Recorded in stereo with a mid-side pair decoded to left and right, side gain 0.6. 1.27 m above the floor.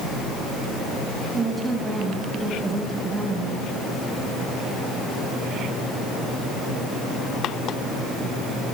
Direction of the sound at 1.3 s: 15° right.